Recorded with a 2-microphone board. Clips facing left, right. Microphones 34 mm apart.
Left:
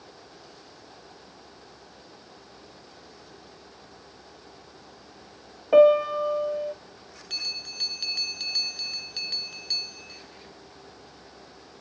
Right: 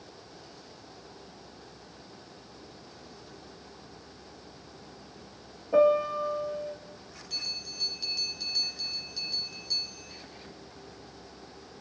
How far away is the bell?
About 1.7 m.